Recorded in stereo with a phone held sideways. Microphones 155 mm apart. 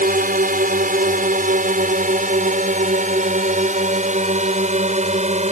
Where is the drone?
60° right (ahead or behind); by 5.5 s 45° right (ahead or behind).